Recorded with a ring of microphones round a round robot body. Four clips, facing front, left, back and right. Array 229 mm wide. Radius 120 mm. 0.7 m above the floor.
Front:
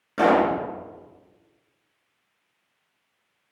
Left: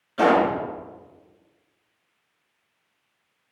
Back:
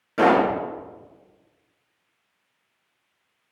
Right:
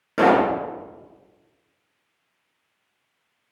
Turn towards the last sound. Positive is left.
turn(degrees=-90)